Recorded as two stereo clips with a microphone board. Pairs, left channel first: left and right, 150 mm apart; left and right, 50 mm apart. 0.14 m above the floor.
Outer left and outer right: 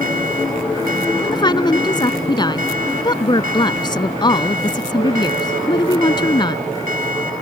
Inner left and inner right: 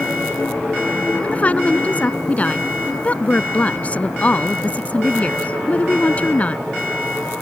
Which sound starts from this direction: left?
A woman speaking, at 1.2 s.